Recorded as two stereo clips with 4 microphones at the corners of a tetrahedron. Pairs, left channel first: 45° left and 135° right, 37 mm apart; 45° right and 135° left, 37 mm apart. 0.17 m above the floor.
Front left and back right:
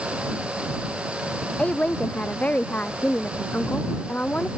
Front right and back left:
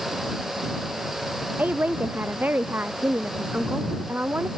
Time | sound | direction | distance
1.6 | a woman speaking | 100° left | ?